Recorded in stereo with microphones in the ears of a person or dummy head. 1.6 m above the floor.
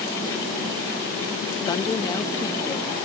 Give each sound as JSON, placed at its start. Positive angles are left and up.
{"t": 1.7, "sound": "a woman speaking", "side_deg": 25}